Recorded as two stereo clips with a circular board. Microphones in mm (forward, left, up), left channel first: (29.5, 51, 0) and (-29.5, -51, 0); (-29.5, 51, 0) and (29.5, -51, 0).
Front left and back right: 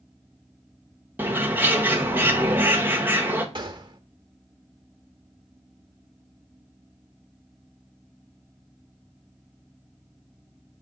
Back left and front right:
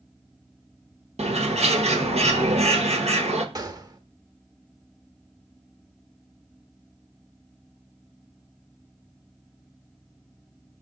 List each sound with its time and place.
1.2 s a bird: 50° right, 1.1 m
3.5 s a gunshot: 100° right, 0.8 m